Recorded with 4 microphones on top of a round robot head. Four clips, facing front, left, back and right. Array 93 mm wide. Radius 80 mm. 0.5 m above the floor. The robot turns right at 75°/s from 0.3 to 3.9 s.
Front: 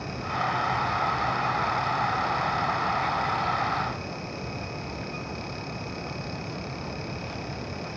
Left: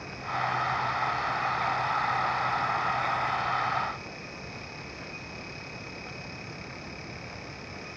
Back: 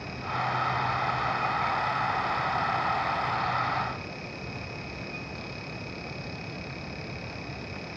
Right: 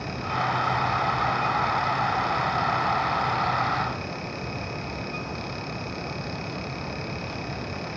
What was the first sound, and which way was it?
Only background noise.